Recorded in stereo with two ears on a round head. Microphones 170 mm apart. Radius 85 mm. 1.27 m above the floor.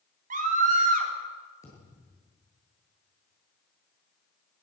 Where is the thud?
15° left (ahead or behind), 9.5 m.